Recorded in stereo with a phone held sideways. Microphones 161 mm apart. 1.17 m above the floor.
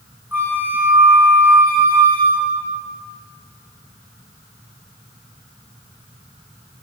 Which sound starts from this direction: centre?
A flute, at 0.3 s.